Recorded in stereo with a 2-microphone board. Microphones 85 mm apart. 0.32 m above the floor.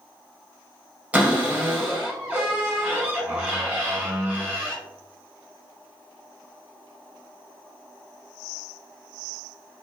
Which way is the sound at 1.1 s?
20° right (ahead or behind).